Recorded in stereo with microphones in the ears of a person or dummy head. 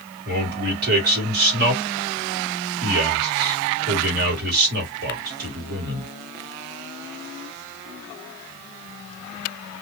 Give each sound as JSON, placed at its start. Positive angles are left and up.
{"t": 0.2, "sound": "a man speaking", "side_deg": -60, "distance_m": 1.7}